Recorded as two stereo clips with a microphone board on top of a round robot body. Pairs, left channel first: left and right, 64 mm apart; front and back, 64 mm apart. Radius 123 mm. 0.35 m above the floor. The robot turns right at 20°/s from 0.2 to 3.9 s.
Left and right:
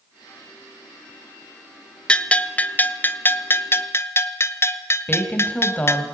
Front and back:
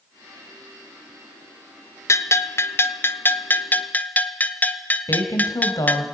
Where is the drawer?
No drawer in this recording.